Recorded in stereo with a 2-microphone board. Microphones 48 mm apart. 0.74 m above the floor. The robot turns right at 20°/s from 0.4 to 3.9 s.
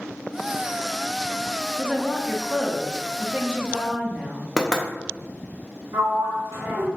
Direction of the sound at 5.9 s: 75° right (ahead or behind).